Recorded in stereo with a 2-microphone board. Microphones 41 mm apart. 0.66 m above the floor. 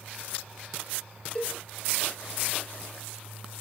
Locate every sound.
1.4 s a cowbell: 15° left (ahead or behind), 0.6 m